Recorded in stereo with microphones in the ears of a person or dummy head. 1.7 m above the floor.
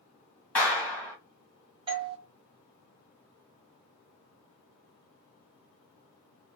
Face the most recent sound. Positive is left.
turn(degrees=-20)  # may be behind; listen again after turning